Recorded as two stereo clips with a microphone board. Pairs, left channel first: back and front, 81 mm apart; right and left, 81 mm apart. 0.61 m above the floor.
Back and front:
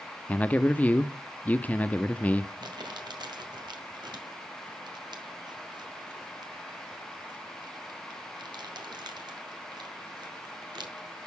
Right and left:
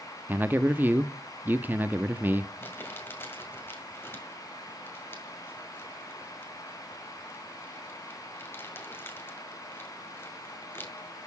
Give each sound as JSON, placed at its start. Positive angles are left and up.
{"t": 0.3, "sound": "a man speaking", "azimuth_deg": 125, "distance_m": 0.6}
{"t": 2.6, "sound": "crumpling", "azimuth_deg": -25, "distance_m": 2.0}